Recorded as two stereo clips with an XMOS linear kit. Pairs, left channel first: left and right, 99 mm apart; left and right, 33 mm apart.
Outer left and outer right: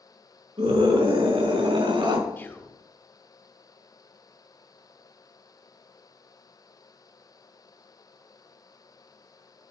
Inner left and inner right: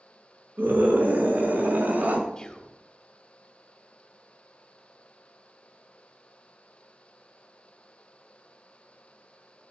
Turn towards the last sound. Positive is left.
turn(degrees=20)  # may be behind; listen again after turning